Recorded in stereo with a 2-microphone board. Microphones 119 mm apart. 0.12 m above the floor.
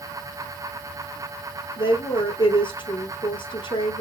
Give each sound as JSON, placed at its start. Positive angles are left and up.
{"t": 1.8, "sound": "a woman speaking", "side_deg": 45, "distance_m": 2.0}